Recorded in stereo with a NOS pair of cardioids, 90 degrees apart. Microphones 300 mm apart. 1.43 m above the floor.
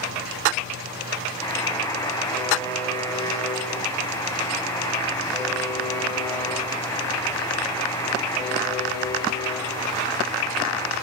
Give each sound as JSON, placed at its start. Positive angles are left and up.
{"t": 1.4, "sound": "a buzzer", "azimuth_deg": 10, "distance_m": 6.5}